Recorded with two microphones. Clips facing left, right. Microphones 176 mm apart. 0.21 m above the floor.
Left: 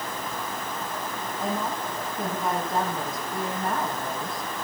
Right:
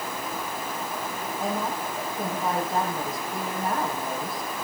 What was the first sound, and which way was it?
A woman speaking, 5° right (ahead or behind).